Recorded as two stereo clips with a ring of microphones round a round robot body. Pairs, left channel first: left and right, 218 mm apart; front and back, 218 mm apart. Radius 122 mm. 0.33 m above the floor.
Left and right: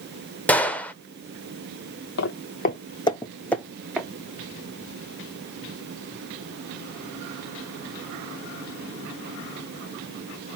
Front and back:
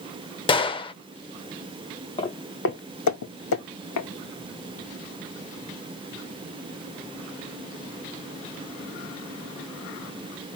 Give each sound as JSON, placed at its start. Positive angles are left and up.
{"t": 0.5, "sound": "a gunshot", "azimuth_deg": 15, "distance_m": 0.6}
{"t": 2.2, "sound": "footsteps", "azimuth_deg": 70, "distance_m": 0.6}